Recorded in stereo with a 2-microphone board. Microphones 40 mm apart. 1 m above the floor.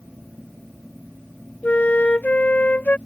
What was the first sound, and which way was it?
A flute, 40° left (ahead or behind).